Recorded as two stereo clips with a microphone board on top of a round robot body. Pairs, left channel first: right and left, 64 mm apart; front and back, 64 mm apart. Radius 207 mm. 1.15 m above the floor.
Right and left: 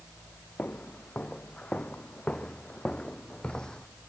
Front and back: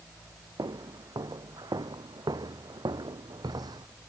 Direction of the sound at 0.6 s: 160° right.